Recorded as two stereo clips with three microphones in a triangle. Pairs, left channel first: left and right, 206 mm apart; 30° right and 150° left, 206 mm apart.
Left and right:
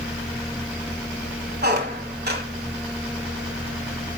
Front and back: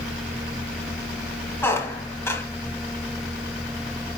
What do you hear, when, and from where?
1.6 s a squeak: 105° right, 1.2 m